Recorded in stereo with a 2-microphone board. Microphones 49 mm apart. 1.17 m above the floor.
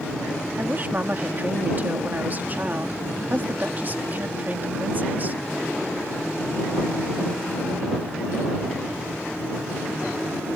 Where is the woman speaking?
40° right (ahead or behind).